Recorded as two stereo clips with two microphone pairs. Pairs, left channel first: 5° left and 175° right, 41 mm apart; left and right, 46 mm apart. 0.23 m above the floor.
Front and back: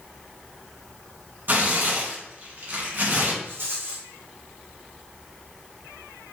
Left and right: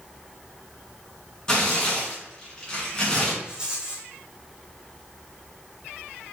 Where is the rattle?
160° right, 1.7 m.